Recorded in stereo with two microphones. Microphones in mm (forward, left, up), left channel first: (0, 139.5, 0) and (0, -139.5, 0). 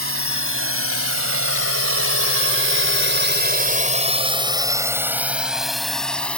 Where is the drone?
55° right (ahead or behind); by 6.4 s 5° left (ahead or behind).